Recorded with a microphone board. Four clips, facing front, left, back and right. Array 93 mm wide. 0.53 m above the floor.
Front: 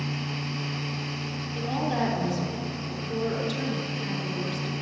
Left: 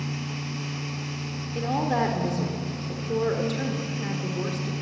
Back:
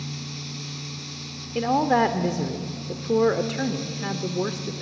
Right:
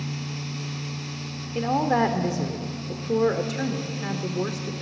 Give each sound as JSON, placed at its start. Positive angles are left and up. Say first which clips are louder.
{"t": 1.6, "sound": "a woman speaking", "louder": "right 3 dB, back 8 dB", "azimuth_deg": -160, "distance_m": 1.1}